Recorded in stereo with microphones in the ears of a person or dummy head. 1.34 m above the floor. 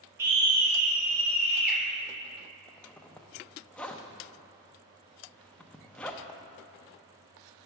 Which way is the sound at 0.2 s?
15° right (ahead or behind).